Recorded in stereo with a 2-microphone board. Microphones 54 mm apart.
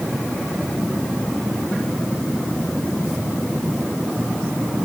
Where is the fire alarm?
No fire alarm in this recording.